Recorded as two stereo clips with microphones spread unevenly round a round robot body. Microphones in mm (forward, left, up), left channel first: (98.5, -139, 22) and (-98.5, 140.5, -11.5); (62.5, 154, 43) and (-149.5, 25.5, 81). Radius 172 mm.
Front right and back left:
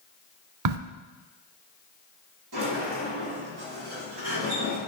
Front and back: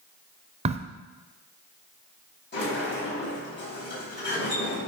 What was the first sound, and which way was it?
A crack, 160° left.